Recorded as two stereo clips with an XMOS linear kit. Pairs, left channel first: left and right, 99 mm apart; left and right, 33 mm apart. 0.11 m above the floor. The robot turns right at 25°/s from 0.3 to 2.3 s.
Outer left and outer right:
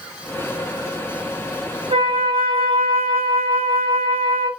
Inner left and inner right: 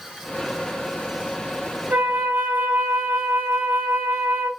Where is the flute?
65° right (ahead or behind), 3 m; by 4.5 s 75° right (ahead or behind), 3 m.